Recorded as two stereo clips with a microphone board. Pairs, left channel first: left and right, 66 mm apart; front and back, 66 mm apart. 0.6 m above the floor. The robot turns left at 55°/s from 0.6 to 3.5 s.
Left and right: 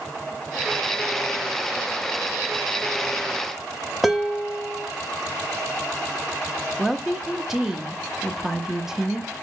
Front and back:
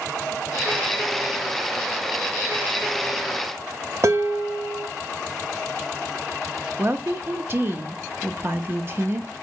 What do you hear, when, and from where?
4.0 s dishes clattering: 175° right, 0.6 m
6.8 s a woman speaking: 170° right, 0.6 m